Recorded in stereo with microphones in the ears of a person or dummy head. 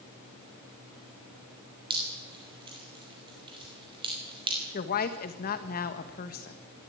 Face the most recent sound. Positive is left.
turn(degrees=45)  # may be behind; listen again after turning